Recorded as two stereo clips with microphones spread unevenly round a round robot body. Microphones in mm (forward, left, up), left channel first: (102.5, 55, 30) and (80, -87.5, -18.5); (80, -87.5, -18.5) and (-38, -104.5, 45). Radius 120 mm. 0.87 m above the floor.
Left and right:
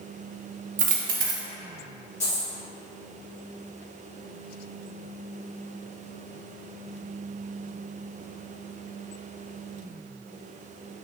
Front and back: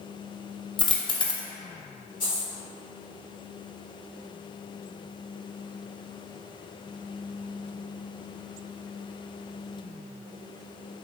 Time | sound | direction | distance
0.8 | a dropped coin | 60° right | 0.5 m
2.2 | a dropped coin | 45° left | 1.4 m